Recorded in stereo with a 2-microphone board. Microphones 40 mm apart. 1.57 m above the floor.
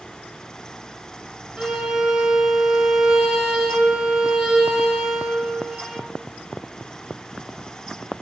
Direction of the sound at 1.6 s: 15° right (ahead or behind).